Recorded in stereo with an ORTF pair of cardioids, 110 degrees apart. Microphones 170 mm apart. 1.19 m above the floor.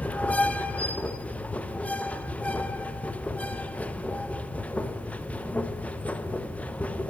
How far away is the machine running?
About 0.7 m.